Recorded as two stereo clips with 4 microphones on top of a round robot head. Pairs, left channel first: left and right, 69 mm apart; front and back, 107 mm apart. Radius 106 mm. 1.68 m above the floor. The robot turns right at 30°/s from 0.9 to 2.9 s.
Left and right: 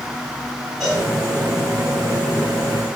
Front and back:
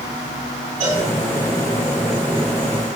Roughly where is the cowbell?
Behind.